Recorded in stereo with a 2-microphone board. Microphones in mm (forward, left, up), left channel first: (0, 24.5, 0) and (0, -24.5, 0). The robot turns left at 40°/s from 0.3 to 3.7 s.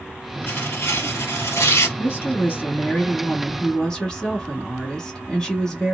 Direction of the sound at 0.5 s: 130° left.